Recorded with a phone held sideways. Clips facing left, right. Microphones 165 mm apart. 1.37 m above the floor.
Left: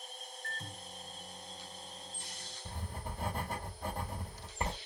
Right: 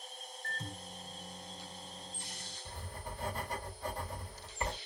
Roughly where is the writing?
Left.